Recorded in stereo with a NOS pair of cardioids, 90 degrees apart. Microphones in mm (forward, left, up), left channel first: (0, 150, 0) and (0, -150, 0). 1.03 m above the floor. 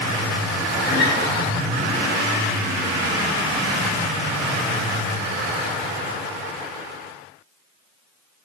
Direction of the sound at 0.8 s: 35° left.